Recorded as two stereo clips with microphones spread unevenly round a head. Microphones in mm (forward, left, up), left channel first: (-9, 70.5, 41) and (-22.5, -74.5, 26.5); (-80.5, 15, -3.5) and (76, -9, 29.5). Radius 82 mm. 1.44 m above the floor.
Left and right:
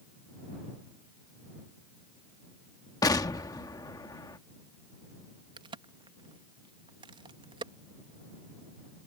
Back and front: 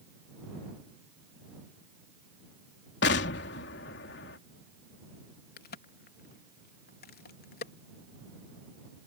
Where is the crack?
155° right.